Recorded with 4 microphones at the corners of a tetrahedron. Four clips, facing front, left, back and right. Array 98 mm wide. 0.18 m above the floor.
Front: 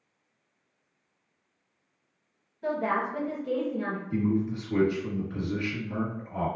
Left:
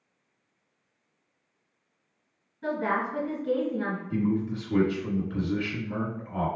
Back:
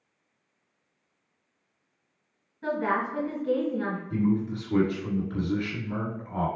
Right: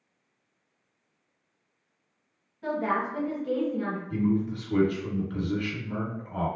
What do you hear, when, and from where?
2.6 s a woman speaking: 155° left, 1.6 m
4.1 s a man speaking: 150° right, 2.0 m